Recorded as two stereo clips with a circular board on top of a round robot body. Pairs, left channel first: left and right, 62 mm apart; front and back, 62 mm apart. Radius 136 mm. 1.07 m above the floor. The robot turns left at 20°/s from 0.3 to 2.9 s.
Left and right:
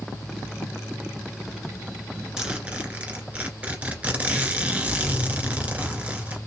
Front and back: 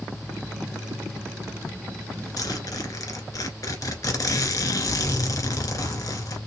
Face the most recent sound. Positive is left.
turn(degrees=-20)